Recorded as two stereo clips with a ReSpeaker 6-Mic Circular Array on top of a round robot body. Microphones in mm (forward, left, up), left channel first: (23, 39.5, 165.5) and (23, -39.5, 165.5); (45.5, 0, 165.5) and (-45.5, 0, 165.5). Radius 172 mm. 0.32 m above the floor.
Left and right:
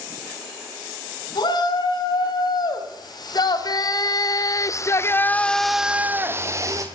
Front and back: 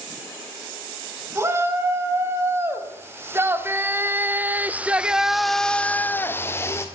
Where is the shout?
120° left, 5 m; by 6.9 s 55° right, 1.9 m.